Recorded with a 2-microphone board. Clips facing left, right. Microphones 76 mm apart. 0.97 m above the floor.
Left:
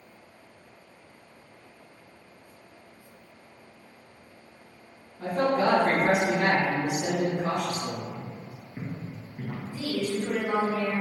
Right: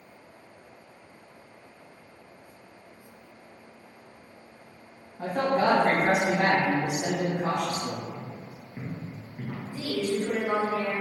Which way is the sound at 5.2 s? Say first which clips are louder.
Even; 60° right (ahead or behind).